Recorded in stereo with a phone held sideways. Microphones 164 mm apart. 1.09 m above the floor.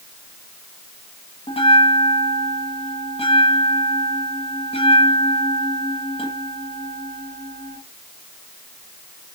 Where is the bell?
35° left (ahead or behind), 1.0 m.